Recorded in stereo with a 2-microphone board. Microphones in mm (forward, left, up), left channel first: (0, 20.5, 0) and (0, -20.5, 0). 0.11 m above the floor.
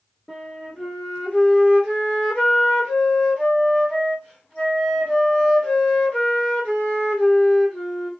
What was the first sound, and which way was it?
A flute, 20° left (ahead or behind).